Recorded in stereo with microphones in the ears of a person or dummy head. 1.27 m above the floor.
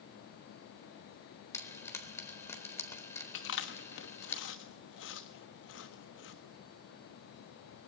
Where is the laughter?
I don't hear laughter.